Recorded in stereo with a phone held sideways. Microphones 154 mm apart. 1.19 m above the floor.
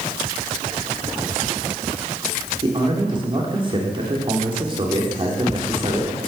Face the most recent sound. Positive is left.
turn(degrees=-35)  # may be behind; listen again after turning